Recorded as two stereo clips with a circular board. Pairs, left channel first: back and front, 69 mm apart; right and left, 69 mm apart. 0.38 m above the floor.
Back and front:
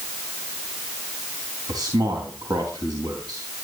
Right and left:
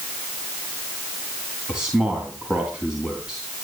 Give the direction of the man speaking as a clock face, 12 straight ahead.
12 o'clock.